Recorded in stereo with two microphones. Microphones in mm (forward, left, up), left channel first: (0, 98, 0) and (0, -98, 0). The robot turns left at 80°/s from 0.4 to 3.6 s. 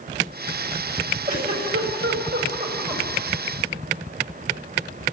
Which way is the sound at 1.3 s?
40° right (ahead or behind).